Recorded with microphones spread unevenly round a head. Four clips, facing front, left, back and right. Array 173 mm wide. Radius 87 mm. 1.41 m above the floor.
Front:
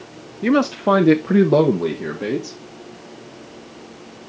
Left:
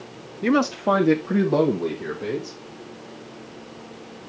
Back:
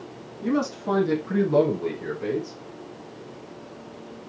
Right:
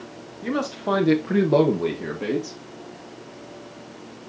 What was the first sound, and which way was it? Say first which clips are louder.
A man speaking: left 5 dB, front 8 dB; 40° left.